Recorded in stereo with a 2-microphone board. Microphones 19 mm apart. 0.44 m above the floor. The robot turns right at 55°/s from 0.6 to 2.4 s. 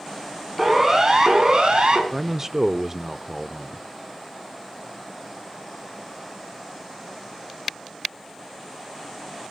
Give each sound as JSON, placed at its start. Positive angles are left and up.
{"t": 0.6, "sound": "a siren", "side_deg": -10, "distance_m": 5.0}
{"t": 2.1, "sound": "a man speaking", "side_deg": -25, "distance_m": 0.7}